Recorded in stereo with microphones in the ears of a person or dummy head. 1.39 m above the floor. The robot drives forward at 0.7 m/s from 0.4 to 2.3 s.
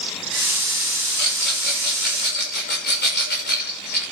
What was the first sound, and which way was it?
A rattle, 60° left (ahead or behind).